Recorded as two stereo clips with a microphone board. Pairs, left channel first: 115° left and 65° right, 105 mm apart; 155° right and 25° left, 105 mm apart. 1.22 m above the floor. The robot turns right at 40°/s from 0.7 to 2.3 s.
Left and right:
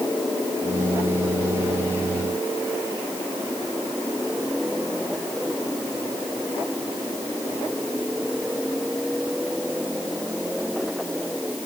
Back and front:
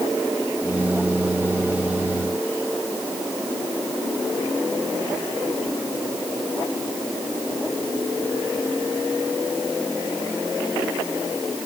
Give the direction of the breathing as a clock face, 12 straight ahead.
No breathing in this recording.